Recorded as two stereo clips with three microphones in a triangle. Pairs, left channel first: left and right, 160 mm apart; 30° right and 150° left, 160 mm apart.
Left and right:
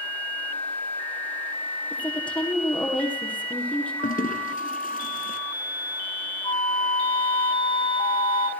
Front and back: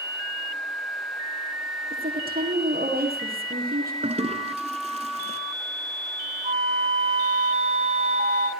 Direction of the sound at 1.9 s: 170° left.